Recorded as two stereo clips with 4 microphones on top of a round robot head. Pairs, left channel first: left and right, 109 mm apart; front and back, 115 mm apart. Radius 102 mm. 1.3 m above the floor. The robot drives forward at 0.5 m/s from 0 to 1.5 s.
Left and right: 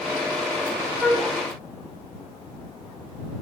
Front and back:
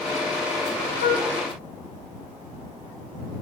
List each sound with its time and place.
1.0 s a flute: 5° right, 1.2 m